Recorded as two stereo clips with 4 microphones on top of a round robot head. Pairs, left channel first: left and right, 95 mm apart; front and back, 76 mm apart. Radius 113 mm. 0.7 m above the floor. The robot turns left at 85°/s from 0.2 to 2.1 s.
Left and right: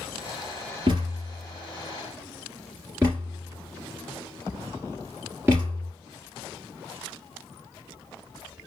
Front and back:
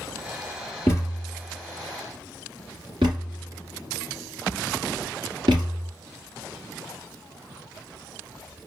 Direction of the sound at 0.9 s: 55° right.